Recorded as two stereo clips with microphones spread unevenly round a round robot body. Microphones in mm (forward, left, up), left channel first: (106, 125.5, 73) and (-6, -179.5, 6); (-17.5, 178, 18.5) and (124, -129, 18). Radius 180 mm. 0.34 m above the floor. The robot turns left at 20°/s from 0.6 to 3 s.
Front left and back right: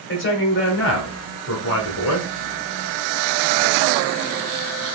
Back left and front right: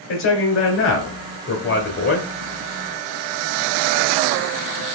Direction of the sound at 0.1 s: 115° left.